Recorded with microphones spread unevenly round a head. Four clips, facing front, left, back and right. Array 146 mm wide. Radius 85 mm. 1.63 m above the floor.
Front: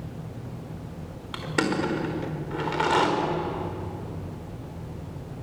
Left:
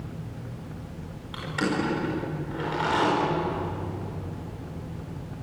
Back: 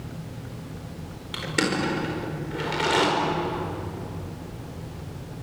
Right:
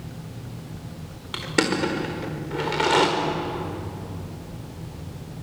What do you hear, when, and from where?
1.3 s crushing: 75° right, 5 m